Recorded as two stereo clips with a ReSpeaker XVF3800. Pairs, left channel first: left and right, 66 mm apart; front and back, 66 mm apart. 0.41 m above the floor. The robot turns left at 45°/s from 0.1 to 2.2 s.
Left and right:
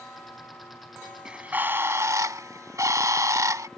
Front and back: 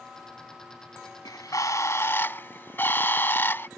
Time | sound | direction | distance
1.2 | a bird | 15° right | ?